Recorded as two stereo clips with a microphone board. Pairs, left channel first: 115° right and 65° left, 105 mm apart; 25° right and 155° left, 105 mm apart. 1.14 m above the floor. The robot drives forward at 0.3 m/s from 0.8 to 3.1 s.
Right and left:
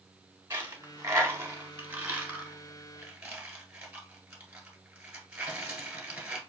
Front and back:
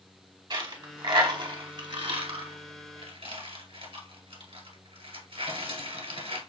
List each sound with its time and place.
0.5 s a dropped coin: 125° left, 1.2 m; by 6.4 s 145° left, 1.7 m